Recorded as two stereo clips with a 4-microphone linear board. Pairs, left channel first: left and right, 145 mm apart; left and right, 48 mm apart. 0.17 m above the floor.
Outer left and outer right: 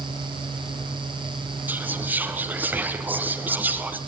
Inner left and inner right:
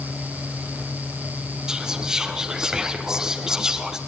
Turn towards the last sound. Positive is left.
turn(degrees=-10)  # may be behind; listen again after turning